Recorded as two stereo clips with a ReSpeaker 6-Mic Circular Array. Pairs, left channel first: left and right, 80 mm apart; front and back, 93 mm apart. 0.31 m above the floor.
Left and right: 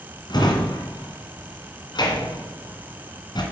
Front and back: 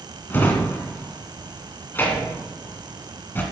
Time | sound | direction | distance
0.3 | a drawer | 65° left | 1.8 m